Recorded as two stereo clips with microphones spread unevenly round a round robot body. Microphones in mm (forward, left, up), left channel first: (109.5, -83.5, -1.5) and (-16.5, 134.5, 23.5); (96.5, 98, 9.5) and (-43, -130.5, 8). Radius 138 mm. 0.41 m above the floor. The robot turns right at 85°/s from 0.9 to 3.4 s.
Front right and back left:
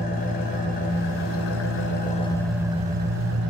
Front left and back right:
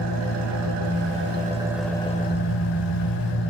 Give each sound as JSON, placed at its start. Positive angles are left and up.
{"t": 0.0, "sound": "an engine running", "azimuth_deg": -110, "distance_m": 0.9}